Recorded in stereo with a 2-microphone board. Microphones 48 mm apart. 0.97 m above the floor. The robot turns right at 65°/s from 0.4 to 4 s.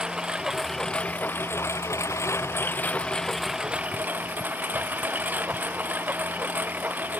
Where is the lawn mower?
20° right; by 7.2 s 145° right.